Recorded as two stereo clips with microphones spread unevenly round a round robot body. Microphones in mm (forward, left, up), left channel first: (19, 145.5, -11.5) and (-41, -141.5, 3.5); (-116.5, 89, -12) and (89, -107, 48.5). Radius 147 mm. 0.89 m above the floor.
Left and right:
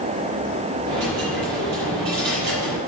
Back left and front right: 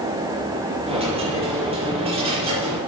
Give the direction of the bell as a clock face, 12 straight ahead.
No bell in this recording.